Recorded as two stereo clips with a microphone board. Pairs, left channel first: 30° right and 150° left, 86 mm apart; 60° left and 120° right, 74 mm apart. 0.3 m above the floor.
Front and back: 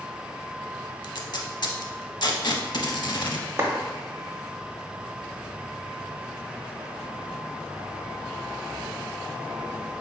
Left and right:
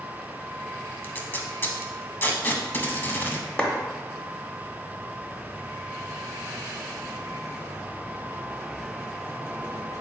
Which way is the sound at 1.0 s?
Straight ahead.